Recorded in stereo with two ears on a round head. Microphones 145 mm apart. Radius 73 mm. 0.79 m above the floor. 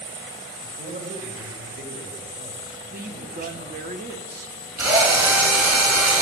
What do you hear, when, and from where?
0.6 s a man speaking: 60° right (ahead or behind), 3 m
2.9 s a woman speaking: 55° right (ahead or behind), 1.2 m
4.8 s a drill: 15° right (ahead or behind), 4 m